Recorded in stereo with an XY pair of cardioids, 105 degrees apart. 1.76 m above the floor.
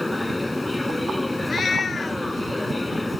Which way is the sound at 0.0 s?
5° left.